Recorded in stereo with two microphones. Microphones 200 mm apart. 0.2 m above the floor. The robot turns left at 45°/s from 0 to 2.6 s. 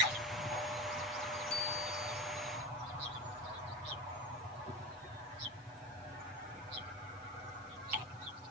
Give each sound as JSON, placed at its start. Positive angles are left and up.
{"t": 1.5, "sound": "a bicycle bell", "side_deg": -35, "distance_m": 3.5}